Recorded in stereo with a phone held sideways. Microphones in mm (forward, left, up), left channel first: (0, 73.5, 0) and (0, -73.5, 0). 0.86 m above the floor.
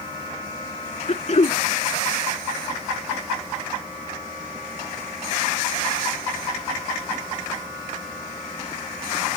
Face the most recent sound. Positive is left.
turn(degrees=50)  # may be behind; listen again after turning